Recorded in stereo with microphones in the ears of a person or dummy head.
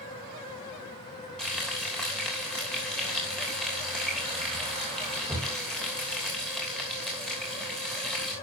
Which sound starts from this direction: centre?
Frying, at 1.4 s.